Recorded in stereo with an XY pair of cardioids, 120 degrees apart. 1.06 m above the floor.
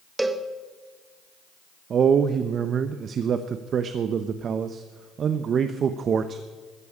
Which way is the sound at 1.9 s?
45° right.